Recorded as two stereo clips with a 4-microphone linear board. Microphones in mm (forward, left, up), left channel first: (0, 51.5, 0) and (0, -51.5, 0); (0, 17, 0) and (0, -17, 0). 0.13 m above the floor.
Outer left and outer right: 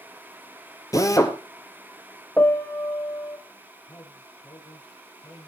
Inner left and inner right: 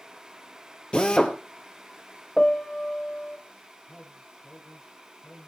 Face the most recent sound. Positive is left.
turn(degrees=30)  # may be behind; listen again after turning